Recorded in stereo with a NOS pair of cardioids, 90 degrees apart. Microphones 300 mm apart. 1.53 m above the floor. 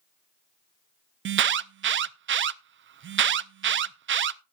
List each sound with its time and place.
1.2 s an alarm: 40° right, 0.5 m